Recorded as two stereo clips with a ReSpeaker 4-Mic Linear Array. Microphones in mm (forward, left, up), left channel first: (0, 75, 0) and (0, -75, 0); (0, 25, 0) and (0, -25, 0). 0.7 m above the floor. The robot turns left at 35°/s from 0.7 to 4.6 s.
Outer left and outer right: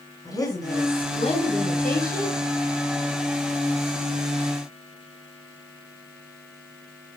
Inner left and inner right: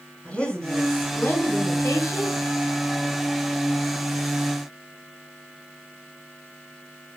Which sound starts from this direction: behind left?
A woman speaking, at 0.2 s.